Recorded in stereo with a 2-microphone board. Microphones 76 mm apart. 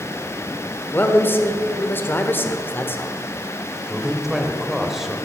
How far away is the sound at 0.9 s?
About 1.3 m.